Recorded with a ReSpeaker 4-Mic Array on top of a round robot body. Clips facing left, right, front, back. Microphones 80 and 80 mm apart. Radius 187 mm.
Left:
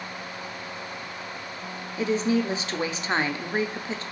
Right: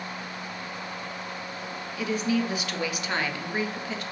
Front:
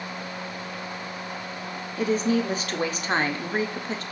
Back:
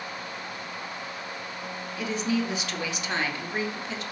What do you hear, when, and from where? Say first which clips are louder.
2.0 s a woman speaking: left 3 dB, front 5 dB; 35° left, 0.9 m